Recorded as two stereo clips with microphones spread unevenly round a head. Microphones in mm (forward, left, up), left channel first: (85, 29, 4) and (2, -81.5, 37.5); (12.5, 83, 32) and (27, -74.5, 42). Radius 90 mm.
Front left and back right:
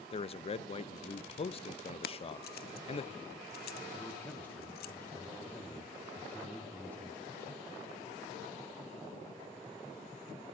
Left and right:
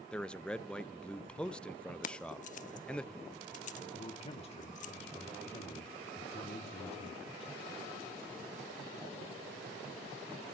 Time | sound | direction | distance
0.1 | a man speaking | 15° left | 0.5 m
2.0 | keys jangling | 55° left | 0.7 m
3.9 | a man speaking | 110° left | 1.0 m